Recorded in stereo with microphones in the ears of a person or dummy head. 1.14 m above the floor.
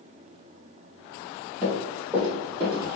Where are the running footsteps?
5° left (ahead or behind), 1.6 m; by 2.9 s 30° right (ahead or behind), 1.7 m.